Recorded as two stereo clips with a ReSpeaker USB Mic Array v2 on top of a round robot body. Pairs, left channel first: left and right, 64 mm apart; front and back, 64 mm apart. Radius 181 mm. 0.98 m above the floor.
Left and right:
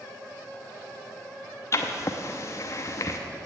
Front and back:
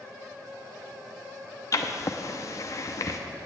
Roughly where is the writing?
Ahead left.